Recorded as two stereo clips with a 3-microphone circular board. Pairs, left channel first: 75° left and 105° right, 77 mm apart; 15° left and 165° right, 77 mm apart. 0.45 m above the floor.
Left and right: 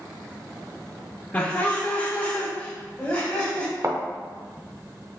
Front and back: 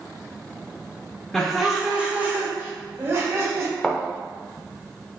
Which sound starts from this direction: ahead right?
A thud, at 3.8 s.